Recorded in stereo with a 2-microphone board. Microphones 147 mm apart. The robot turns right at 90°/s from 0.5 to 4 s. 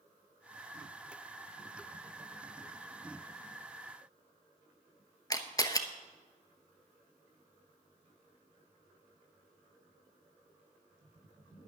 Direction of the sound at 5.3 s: 25° left (ahead or behind).